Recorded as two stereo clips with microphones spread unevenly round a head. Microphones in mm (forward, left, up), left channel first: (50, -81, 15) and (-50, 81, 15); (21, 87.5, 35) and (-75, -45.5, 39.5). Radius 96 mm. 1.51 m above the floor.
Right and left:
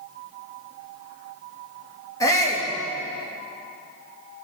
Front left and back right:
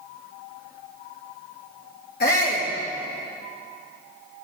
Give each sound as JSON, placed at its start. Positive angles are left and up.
{"t": 2.2, "sound": "a shout", "azimuth_deg": 15, "distance_m": 3.0}